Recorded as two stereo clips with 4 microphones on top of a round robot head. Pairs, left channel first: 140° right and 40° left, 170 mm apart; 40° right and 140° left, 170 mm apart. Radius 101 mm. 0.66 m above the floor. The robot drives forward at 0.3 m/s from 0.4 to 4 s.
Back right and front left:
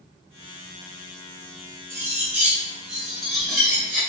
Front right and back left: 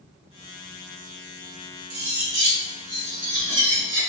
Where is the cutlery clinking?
115° left, 1.3 m; by 4.0 s 135° left, 1.6 m.